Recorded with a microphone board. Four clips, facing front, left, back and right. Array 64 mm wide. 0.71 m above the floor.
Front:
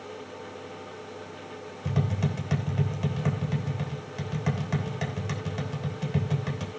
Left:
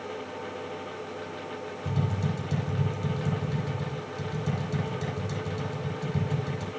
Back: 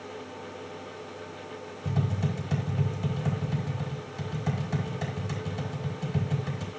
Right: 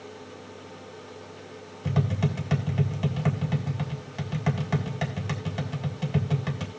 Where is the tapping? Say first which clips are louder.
Right 4 dB, front 1 dB; 60° right, 3 m.